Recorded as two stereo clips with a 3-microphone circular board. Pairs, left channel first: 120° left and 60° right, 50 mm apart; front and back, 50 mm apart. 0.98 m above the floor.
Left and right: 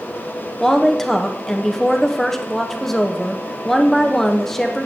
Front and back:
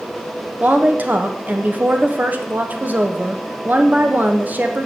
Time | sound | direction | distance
0.6 | a woman speaking | 160° right | 0.9 m